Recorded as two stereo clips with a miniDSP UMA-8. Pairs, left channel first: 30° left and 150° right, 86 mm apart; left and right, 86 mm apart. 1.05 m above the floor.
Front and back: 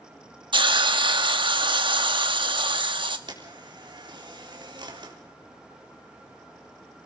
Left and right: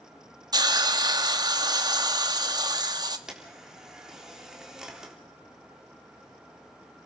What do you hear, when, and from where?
0.5 s a hiss: 130° right, 1.1 m
3.3 s a camera shutter: 175° right, 3.5 m